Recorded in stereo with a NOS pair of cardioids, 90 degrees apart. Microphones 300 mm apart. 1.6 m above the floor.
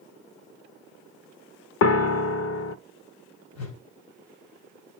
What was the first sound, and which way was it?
A piano, 55° left.